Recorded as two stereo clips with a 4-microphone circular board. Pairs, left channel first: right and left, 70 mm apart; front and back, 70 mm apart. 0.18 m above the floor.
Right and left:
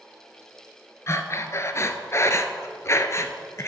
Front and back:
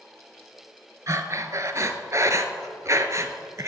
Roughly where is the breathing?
Behind right.